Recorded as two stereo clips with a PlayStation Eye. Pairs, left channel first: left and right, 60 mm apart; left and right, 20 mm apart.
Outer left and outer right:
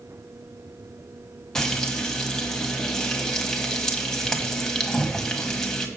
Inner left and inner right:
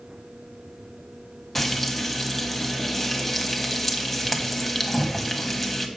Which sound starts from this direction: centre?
Frying, at 1.6 s.